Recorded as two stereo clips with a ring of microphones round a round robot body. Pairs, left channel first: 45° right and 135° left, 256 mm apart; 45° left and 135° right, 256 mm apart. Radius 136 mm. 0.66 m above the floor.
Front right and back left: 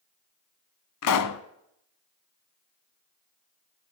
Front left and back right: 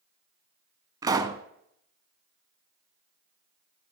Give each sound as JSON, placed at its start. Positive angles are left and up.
{"t": 1.0, "sound": "a pop", "azimuth_deg": -60, "distance_m": 0.8}